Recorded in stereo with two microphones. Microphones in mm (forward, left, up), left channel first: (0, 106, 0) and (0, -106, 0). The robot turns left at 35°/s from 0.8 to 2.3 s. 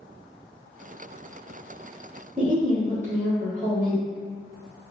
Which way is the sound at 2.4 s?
35° right (ahead or behind).